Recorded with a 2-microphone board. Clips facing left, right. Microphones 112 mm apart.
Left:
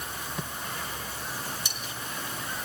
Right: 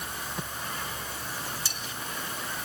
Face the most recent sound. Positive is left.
turn(degrees=15)  # may be behind; listen again after turning